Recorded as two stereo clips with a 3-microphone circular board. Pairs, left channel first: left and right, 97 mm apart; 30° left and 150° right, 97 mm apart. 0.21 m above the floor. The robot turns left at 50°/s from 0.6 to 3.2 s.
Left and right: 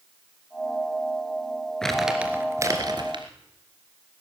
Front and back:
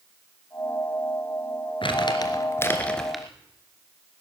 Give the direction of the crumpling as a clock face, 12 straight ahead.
12 o'clock.